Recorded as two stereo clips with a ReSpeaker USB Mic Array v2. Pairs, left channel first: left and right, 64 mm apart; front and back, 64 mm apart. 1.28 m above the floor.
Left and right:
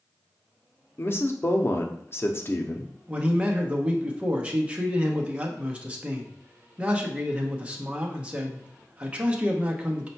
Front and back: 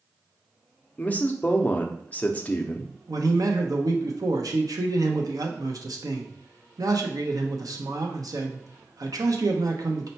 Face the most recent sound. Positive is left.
turn(degrees=-160)